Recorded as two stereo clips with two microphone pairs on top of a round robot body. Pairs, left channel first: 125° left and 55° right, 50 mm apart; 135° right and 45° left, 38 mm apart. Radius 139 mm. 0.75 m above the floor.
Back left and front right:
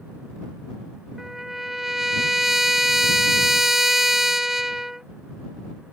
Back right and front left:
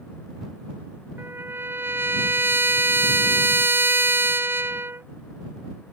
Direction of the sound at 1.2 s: 25° left.